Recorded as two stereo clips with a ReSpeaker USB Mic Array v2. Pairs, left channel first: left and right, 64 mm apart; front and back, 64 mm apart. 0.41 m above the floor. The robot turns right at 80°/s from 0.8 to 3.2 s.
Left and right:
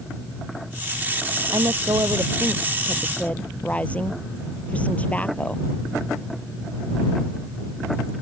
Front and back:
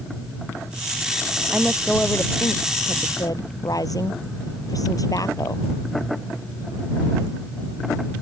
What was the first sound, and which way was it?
A woman speaking, 110° right.